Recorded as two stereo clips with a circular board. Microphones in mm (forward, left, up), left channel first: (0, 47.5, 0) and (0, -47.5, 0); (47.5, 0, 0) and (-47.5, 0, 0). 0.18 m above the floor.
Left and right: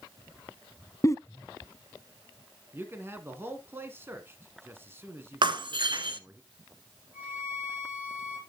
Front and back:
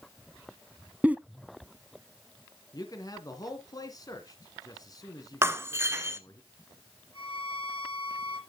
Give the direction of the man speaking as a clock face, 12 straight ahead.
1 o'clock.